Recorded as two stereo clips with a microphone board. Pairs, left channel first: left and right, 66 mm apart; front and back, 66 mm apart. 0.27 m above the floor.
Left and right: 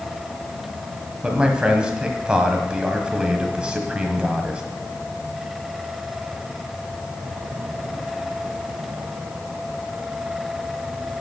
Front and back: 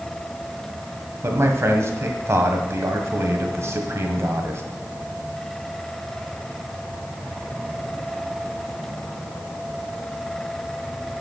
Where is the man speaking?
160° right, 1.3 m.